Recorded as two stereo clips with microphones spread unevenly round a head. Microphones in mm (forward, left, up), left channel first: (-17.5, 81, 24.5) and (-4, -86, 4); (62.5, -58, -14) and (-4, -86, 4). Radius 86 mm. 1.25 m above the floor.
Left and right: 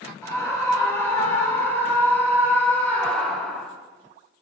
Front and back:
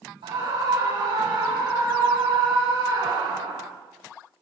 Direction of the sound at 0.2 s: 170° left.